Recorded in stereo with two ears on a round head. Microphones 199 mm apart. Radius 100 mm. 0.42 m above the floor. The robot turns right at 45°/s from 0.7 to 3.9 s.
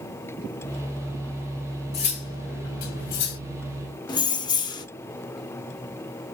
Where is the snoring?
No snoring in this recording.